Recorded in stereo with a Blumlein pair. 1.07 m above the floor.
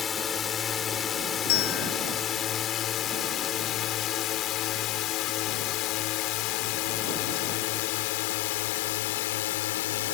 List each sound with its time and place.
0.0 s a drone: 20° left; by 10.2 s 55° left
1.5 s a bell: 45° left